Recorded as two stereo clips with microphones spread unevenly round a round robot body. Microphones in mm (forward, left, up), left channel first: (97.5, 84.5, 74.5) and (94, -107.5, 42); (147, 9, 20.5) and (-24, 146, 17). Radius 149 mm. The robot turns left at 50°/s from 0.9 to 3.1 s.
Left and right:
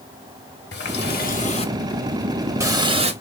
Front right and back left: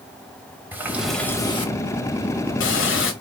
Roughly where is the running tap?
Ahead left.